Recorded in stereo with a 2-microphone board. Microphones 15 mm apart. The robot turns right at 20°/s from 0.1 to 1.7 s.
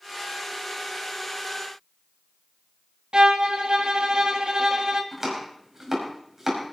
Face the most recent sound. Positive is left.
turn(degrees=-30)  # may be behind; listen again after turning